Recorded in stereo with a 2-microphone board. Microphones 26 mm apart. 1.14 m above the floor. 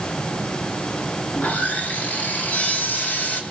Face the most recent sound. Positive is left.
turn(degrees=75)  # may be behind; listen again after turning